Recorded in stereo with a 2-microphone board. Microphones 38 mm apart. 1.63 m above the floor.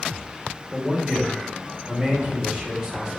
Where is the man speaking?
20° right (ahead or behind), 1.4 m.